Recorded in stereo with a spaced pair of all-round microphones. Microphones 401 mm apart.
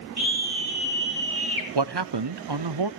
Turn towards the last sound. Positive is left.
turn(degrees=-70)  # may be behind; listen again after turning